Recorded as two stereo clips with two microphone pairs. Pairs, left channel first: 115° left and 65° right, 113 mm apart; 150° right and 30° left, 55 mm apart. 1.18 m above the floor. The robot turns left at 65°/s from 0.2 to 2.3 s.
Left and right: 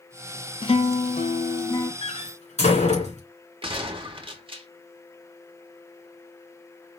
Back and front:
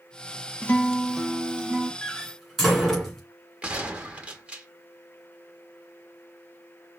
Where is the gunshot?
35° right, 0.9 m.